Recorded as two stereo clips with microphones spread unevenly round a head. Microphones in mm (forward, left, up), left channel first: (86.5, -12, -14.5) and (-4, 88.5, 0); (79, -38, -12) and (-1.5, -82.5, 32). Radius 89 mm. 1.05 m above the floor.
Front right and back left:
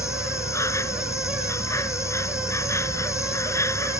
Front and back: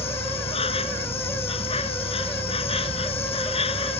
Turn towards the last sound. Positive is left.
turn(degrees=20)